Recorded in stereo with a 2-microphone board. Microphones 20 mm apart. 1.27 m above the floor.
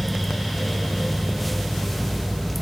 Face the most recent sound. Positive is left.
No sound to turn to.